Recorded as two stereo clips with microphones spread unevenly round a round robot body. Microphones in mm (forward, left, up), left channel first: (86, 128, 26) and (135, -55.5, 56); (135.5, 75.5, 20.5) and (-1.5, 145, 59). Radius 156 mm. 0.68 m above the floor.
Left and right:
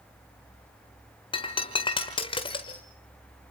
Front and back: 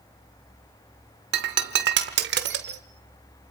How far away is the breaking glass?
About 1.2 m.